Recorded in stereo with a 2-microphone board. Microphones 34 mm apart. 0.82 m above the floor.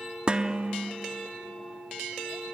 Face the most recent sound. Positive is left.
turn(degrees=-30)  # may be behind; listen again after turning